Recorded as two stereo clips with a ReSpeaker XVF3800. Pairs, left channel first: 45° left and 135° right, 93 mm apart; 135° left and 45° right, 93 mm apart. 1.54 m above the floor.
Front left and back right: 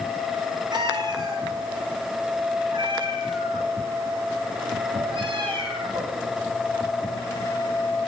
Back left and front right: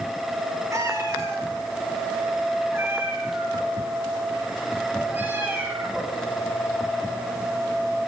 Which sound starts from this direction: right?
A cat meowing, at 0.7 s.